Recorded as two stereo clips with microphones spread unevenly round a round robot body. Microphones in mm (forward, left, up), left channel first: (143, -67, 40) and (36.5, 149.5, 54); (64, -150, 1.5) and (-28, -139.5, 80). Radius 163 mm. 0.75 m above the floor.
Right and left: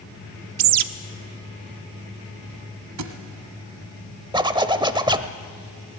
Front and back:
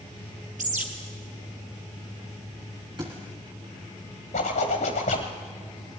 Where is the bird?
115° left, 0.8 m.